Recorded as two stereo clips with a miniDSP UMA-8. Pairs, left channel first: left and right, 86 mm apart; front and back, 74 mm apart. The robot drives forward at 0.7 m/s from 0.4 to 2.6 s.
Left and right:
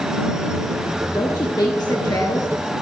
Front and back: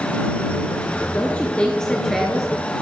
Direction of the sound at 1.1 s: 60° left.